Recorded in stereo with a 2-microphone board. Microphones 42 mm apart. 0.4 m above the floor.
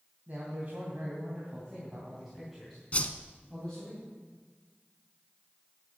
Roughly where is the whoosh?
Left.